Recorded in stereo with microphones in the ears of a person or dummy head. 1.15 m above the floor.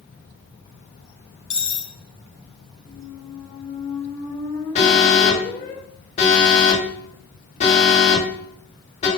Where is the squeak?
15° left (ahead or behind), 2 m.